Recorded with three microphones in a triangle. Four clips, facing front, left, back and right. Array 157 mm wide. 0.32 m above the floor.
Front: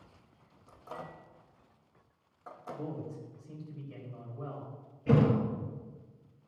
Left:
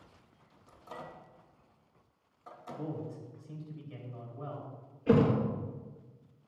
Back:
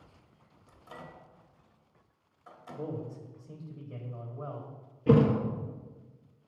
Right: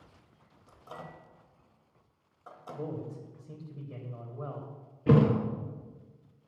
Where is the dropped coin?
No dropped coin in this recording.